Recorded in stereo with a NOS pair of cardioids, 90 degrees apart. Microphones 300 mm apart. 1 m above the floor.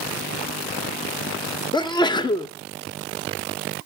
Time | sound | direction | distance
1.7 | a sneeze | 15° left | 0.8 m